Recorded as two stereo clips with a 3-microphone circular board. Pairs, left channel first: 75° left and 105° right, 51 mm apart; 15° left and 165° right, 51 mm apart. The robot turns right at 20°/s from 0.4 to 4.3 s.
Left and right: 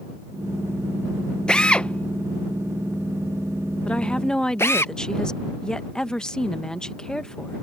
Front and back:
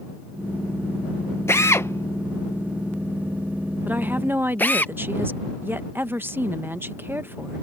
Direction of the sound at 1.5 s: 5° left.